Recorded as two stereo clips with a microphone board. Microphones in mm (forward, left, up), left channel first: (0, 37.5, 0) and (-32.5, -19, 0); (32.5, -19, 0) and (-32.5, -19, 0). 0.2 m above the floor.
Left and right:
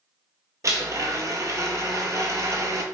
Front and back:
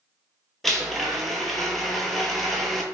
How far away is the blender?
About 0.8 m.